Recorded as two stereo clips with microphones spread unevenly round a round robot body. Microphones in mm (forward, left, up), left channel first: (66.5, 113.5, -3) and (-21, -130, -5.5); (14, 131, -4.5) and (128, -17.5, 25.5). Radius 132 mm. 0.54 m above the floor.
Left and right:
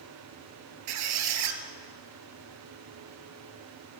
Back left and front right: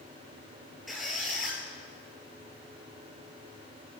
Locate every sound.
0.9 s a squeak: 140° right, 1.8 m